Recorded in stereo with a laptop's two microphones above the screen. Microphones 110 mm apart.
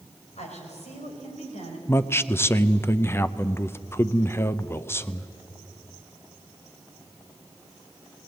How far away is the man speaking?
About 0.6 m.